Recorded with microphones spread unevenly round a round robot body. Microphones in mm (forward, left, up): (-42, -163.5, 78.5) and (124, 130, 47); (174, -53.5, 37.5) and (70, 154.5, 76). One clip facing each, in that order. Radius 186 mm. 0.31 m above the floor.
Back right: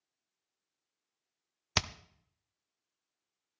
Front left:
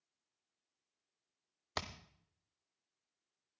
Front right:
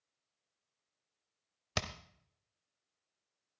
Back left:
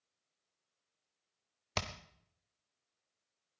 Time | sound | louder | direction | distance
1.8 | hammering | back right 6 dB, front right 1 dB | 125° right | 0.9 m